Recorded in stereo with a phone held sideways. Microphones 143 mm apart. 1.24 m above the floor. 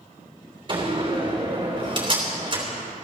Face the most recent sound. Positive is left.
turn(degrees=-35)  # may be behind; listen again after turning